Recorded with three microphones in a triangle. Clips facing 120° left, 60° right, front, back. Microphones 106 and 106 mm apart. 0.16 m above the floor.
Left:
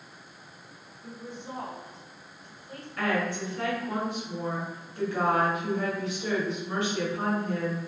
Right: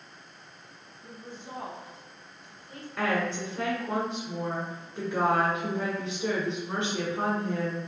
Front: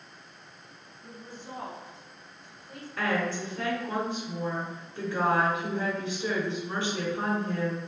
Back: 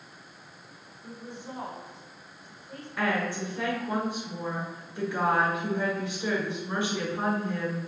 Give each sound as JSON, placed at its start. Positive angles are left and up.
{"t": 1.0, "sound": "a woman speaking", "azimuth_deg": 130, "distance_m": 1.7}
{"t": 3.0, "sound": "a woman speaking", "azimuth_deg": -110, "distance_m": 1.4}